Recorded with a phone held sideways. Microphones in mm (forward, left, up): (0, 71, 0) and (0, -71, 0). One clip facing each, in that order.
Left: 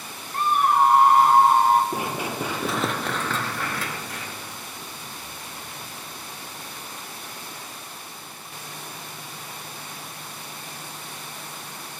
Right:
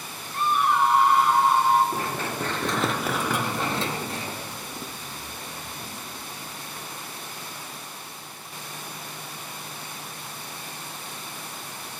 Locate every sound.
0.3 s a scream: 45° left (ahead or behind), 1.8 m
1.9 s running footsteps: 15° left (ahead or behind), 1.9 m; by 6.5 s 35° right (ahead or behind), 3.5 m